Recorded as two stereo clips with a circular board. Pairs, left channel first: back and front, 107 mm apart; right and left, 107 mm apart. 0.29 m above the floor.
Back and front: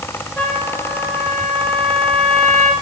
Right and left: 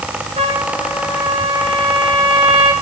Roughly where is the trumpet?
Left.